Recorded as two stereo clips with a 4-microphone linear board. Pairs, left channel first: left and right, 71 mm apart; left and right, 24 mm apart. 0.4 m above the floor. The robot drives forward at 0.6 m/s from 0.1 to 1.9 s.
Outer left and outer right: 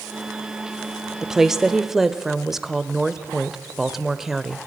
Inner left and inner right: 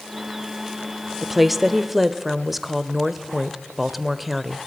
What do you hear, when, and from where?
1.2 s a woman speaking: 5° right (ahead or behind), 0.8 m